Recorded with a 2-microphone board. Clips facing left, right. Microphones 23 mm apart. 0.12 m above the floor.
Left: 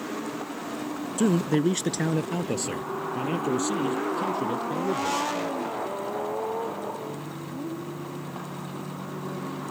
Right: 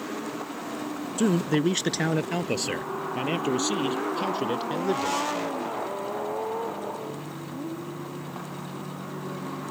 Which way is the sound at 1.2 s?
15° right (ahead or behind).